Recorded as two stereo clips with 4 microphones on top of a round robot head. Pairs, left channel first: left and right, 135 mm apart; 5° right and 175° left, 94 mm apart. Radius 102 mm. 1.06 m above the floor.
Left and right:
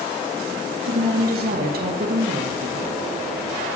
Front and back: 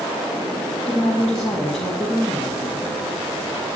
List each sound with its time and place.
0.9 s a woman speaking: 95° right, 1.7 m